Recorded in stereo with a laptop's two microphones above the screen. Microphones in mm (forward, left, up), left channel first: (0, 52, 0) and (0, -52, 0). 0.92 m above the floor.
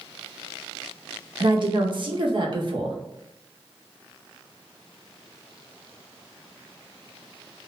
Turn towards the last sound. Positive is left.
turn(degrees=-50)  # may be behind; listen again after turning